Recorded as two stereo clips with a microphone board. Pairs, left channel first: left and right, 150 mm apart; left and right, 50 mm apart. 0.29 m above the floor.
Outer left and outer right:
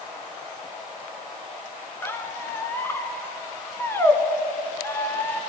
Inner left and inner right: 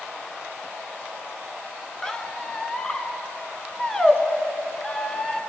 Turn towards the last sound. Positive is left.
turn(degrees=15)  # may be behind; listen again after turning